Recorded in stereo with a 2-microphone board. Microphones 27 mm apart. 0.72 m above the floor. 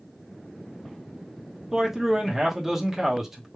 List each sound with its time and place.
1.7 s a man speaking: 15° right (ahead or behind), 1.0 m